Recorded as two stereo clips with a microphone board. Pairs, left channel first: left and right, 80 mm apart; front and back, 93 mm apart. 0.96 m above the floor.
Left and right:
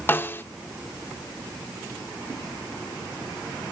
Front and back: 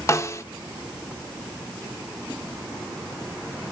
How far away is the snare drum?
About 0.7 m.